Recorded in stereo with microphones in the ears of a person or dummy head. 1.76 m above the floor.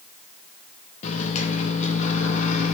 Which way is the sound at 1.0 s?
35° left (ahead or behind).